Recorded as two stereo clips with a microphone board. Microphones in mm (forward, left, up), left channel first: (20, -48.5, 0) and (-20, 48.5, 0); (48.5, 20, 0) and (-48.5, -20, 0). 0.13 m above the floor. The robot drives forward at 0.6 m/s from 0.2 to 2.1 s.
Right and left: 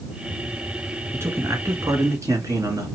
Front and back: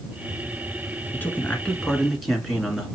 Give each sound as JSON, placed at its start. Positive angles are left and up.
{"t": 1.1, "sound": "a man speaking", "azimuth_deg": 75, "distance_m": 1.5}